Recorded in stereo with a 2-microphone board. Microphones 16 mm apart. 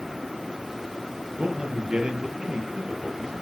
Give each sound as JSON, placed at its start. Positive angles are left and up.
{"t": 1.4, "sound": "a man speaking", "side_deg": -80, "distance_m": 6.5}